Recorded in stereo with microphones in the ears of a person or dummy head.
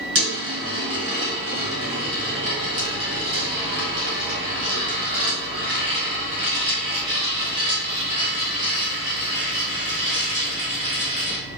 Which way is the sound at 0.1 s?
35° right (ahead or behind).